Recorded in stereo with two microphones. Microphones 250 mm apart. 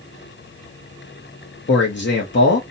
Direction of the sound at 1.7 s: 50° left (ahead or behind).